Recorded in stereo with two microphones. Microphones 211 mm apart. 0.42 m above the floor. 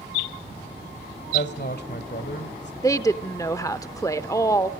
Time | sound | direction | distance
1.3 | a woman speaking | 55° left (ahead or behind) | 1.6 m
2.8 | a woman speaking | 15° left (ahead or behind) | 0.7 m